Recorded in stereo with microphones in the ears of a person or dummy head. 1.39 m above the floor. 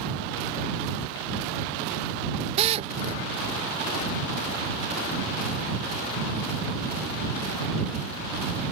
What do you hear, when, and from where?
2.6 s a drill: 30° right (ahead or behind)